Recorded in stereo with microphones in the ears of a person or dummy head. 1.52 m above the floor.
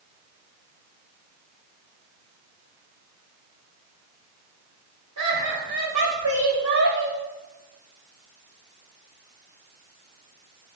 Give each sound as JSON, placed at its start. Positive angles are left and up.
{"t": 5.2, "sound": "laughter", "side_deg": -80, "distance_m": 4.0}